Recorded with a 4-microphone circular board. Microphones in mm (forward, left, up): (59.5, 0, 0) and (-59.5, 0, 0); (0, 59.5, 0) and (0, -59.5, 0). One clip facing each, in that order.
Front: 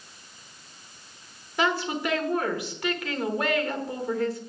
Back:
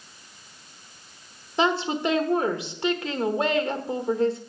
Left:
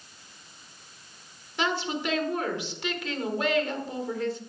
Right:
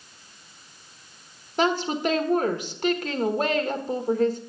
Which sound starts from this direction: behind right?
A woman speaking, at 1.6 s.